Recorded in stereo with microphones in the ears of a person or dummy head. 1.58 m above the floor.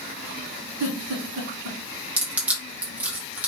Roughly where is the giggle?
Right.